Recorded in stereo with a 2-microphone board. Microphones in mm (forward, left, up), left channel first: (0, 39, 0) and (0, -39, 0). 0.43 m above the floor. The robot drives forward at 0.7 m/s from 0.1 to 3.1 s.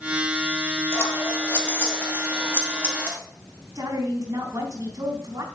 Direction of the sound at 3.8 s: 50° right (ahead or behind).